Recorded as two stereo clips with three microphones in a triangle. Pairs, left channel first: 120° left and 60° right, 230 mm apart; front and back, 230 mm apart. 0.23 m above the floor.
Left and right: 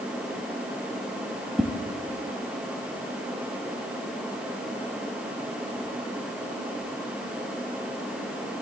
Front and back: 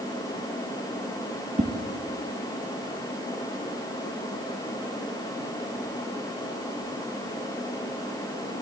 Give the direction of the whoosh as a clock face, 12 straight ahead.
5 o'clock.